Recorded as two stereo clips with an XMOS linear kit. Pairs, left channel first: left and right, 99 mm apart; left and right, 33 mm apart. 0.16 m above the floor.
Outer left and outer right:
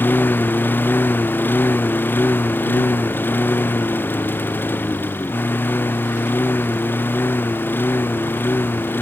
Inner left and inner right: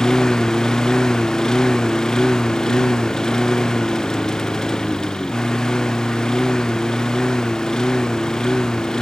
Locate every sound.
0.0 s a lawn mower: 20° left (ahead or behind)